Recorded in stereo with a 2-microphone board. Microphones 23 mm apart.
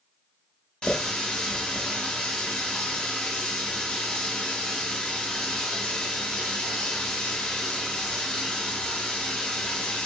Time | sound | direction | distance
0.8 | a running tap | 45° left (ahead or behind) | 1.0 m